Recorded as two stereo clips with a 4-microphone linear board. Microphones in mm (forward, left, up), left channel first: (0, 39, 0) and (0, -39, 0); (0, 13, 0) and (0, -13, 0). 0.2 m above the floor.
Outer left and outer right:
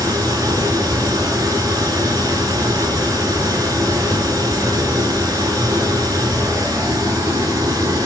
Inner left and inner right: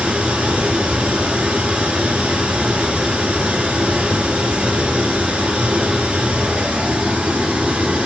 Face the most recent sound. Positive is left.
turn(degrees=-50)  # may be behind; listen again after turning